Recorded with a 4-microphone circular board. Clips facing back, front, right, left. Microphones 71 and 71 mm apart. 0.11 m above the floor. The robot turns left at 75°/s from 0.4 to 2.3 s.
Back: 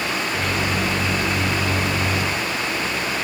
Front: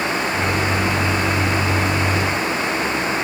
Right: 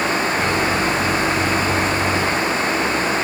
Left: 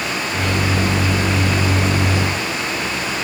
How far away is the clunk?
No clunk in this recording.